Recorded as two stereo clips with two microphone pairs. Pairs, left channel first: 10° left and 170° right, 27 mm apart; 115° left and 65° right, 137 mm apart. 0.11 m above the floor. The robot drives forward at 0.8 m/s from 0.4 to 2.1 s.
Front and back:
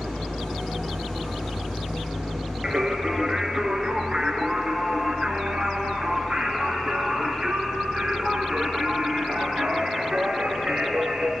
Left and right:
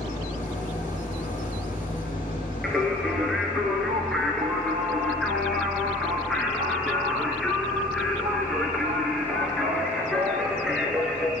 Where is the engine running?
85° left, 5 m; by 11.4 s 100° left, 5 m.